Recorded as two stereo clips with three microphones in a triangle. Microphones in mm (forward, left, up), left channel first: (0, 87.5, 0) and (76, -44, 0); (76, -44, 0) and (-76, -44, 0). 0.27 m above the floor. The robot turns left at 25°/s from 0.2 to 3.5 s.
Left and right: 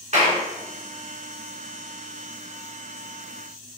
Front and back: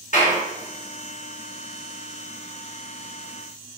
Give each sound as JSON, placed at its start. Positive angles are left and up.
{"t": 0.1, "sound": "a clap", "azimuth_deg": -25, "distance_m": 2.5}